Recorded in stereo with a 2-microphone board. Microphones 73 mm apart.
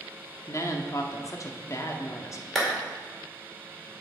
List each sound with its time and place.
0.5 s a woman speaking: 45° left (ahead or behind), 0.9 m
2.5 s a clap: 5° left (ahead or behind), 2 m